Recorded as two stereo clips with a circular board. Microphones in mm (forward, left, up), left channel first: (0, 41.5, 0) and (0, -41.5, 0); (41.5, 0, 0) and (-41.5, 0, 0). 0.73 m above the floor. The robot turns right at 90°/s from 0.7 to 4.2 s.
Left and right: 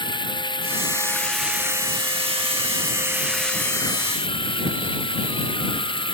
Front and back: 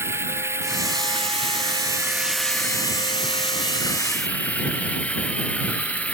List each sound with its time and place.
0.0 s running water: 120° left; by 6.1 s 75° left